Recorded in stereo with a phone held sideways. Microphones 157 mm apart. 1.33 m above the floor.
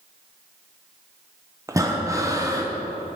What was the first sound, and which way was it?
Breathing, 20° right (ahead or behind).